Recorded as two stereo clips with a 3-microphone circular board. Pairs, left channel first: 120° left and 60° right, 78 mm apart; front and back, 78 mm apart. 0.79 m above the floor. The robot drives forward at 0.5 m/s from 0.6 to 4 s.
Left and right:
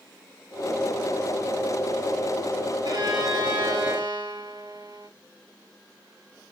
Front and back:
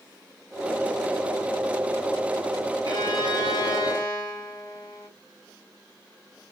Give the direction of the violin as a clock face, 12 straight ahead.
1 o'clock.